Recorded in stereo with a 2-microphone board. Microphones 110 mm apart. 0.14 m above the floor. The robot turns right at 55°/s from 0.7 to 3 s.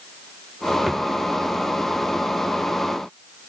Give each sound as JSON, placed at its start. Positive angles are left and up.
{"t": 0.9, "sound": "a drawer", "side_deg": -5}